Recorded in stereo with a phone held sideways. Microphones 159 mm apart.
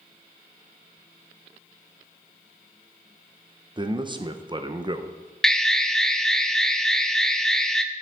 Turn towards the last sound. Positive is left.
turn(degrees=5)  # may be behind; listen again after turning